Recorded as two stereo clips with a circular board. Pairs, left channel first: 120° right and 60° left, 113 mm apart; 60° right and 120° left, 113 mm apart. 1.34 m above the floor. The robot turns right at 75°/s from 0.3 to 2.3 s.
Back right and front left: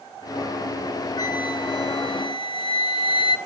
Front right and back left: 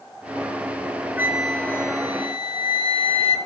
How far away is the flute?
About 0.9 m.